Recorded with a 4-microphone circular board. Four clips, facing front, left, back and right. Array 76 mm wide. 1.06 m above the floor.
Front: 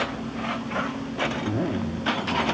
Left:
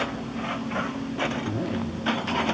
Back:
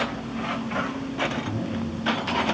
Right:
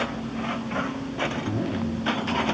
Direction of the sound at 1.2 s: Straight ahead.